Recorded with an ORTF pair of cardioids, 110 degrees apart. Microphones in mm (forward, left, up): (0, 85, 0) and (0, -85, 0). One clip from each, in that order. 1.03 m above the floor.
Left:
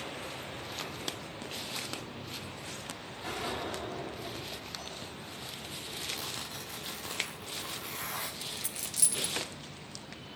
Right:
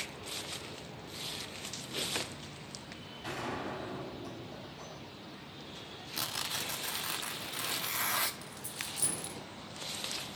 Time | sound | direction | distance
3.2 | a gunshot | 10° left | 7 m
6.2 | tearing paper | 45° right | 1.3 m
8.4 | a dropped coin | 40° left | 1.3 m